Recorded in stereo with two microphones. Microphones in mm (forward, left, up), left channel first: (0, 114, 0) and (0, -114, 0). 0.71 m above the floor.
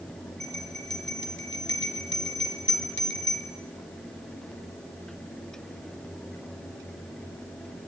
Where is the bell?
60° left (ahead or behind), 2.5 m.